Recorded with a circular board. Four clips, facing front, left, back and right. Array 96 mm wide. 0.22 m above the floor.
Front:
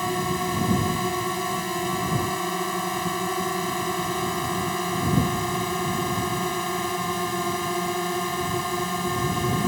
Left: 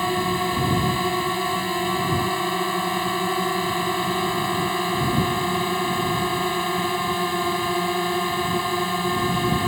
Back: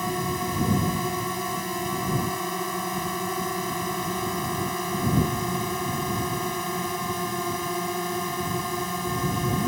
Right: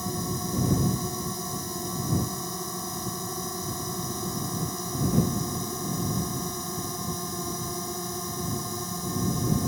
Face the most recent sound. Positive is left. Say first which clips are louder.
# left 10 dB, front 2 dB
turn(degrees=75)